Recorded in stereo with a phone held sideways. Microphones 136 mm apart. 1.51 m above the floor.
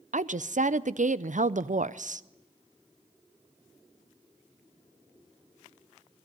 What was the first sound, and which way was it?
A woman speaking, 70° right (ahead or behind).